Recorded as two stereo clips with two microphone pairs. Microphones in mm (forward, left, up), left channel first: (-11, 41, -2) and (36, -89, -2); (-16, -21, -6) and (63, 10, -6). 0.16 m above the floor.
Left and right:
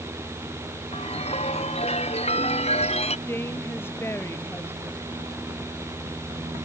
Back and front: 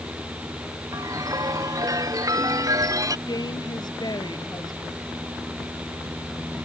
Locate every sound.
0.9 s a chime: 70° left
3.3 s a woman speaking: straight behind